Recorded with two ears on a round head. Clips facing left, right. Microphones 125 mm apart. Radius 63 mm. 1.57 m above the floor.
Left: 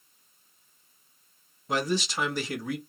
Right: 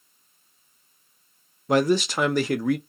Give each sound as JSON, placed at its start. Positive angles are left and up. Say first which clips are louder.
{"t": 1.7, "sound": "a man speaking", "louder": "right 8 dB", "side_deg": -45, "distance_m": 0.6}